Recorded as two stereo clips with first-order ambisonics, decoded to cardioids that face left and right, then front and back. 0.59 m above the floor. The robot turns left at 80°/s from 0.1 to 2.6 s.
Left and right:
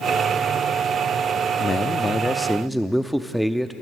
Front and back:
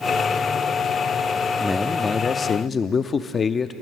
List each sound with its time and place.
1.6 s a man speaking: 75° left, 0.6 m; by 3.7 s 5° right, 0.6 m